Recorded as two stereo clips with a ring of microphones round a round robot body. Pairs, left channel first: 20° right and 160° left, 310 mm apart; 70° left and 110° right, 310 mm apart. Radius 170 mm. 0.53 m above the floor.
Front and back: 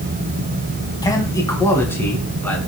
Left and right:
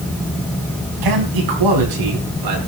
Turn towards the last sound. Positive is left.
turn(degrees=-105)